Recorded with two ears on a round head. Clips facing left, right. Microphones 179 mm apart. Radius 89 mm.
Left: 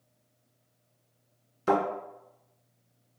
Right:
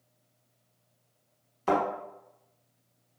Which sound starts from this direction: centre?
A thud, at 1.7 s.